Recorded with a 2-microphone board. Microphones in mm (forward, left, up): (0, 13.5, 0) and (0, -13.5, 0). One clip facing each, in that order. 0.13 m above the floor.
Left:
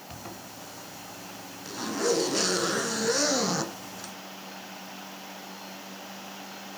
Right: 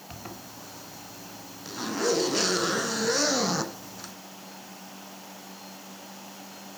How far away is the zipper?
About 1.0 m.